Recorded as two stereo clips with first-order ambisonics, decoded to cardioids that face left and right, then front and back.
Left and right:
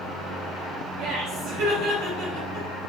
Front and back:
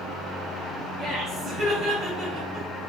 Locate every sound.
1.0 s laughter: 105° right, 2.5 m